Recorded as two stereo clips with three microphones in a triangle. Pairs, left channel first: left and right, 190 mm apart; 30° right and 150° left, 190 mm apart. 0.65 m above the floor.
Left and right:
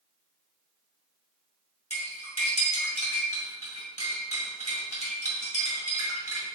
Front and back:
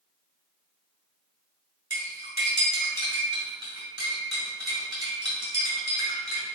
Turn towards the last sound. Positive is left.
turn(degrees=140)